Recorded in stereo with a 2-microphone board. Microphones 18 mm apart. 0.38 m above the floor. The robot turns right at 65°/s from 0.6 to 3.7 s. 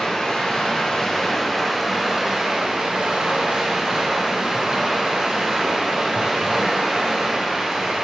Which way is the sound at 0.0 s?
110° left.